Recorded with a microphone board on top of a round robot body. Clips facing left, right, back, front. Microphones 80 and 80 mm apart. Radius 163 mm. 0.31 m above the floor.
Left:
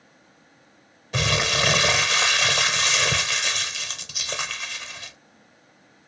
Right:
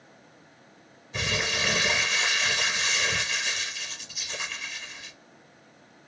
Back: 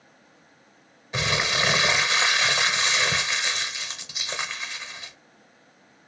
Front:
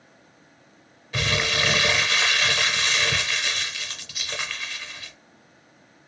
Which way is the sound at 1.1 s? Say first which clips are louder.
Left 5 dB, even; 110° left.